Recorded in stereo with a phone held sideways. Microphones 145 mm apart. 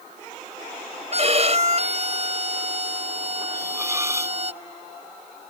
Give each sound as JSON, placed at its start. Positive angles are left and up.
{"t": 1.1, "sound": "a violin", "side_deg": -50}
{"t": 3.5, "sound": "a hiss", "side_deg": -20}